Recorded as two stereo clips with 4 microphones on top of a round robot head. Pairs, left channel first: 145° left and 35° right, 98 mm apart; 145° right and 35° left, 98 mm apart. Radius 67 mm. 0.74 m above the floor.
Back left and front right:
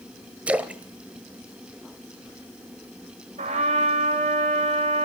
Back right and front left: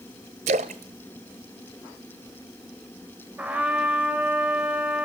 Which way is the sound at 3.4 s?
40° right.